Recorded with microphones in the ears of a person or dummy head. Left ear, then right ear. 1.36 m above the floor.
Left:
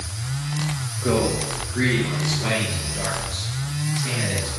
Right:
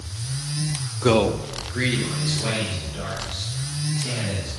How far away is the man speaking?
About 0.5 m.